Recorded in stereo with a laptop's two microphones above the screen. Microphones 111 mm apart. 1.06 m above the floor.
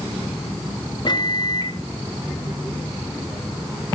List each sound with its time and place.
1.1 s a microwave: 40° left (ahead or behind), 0.7 m